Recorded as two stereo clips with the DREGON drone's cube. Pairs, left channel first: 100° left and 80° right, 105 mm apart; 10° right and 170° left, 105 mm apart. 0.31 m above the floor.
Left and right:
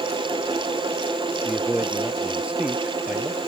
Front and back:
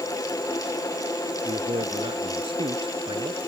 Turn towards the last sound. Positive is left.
turn(degrees=-160)